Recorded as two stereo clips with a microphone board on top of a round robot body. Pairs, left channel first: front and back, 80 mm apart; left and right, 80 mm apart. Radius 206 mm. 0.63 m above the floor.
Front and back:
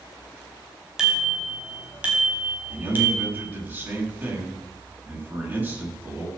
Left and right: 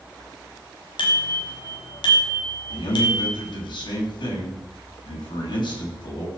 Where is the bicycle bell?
95° left, 4.5 m; by 3.3 s 115° left, 4 m.